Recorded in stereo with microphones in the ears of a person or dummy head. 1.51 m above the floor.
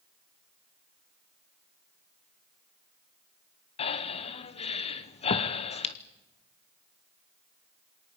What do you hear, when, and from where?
3.8 s breathing: 35° left (ahead or behind), 1.1 m